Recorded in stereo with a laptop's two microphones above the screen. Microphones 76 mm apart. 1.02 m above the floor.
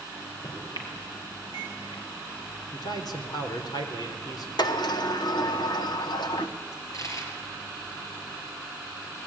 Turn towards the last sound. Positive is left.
turn(degrees=45)  # may be behind; listen again after turning